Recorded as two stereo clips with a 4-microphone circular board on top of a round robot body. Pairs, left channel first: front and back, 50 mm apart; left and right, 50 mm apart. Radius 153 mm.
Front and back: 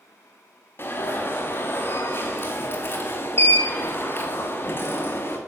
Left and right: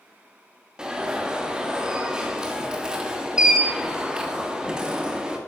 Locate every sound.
0.8 s an alarm: 20° right, 2.5 m